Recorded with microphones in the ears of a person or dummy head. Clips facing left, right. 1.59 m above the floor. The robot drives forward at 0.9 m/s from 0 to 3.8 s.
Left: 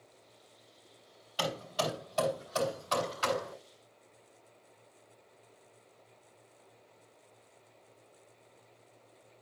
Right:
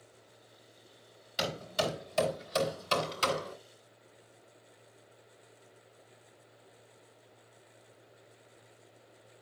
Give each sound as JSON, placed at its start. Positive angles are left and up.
{"t": 1.4, "sound": "hammering", "side_deg": -30, "distance_m": 4.0}